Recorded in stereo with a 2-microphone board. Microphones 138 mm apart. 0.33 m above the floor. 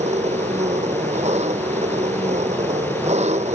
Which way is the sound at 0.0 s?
55° right (ahead or behind).